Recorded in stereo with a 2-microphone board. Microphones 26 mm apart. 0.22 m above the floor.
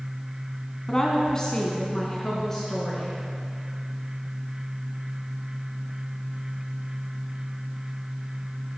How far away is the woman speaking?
About 2.0 m.